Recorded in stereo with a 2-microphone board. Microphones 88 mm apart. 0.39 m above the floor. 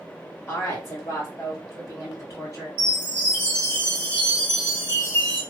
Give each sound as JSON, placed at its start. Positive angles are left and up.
{"t": 0.5, "sound": "a woman speaking", "side_deg": 30, "distance_m": 1.2}
{"t": 2.8, "sound": "a chime", "side_deg": 25, "distance_m": 2.5}